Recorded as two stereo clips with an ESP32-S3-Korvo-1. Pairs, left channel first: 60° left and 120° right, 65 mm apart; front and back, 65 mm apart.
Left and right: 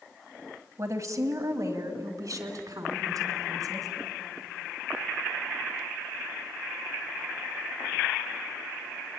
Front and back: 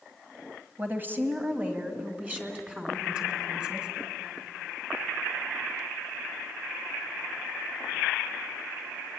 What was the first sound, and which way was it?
A woman speaking, 130° right.